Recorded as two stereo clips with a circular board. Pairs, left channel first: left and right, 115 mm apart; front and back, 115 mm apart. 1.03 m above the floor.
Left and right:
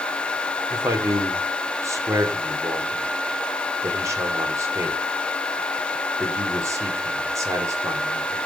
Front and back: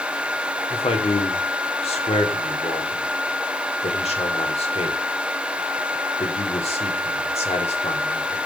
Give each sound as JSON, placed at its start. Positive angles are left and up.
{"t": 0.7, "sound": "a man speaking", "azimuth_deg": -25, "distance_m": 3.0}